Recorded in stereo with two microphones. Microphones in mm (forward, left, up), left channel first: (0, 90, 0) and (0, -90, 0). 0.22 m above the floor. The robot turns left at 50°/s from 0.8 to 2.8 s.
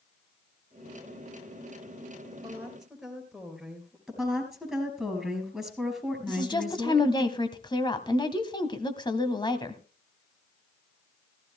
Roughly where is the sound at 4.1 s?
Centre.